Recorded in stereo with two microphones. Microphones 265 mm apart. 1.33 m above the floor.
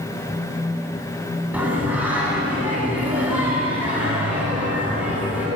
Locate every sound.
1.5 s singing: 5° right (ahead or behind), 9.5 m